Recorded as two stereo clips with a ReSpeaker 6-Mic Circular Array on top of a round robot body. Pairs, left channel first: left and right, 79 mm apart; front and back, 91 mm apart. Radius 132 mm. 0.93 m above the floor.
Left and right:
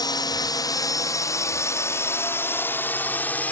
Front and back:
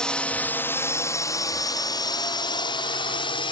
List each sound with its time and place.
0.0 s a drone: 80° left; by 3.5 s 20° left